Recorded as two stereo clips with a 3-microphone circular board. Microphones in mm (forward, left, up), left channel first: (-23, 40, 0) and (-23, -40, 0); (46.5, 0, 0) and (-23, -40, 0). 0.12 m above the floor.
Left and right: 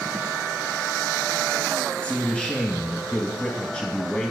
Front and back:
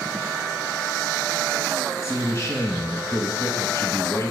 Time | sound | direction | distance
2.0 | a man speaking | 25° left | 1.4 m